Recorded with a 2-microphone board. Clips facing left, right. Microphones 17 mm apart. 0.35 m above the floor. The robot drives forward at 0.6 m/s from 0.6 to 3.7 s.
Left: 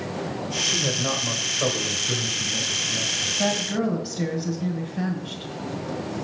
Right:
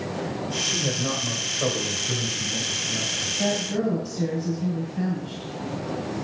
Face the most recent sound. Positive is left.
turn(degrees=30)  # may be behind; listen again after turning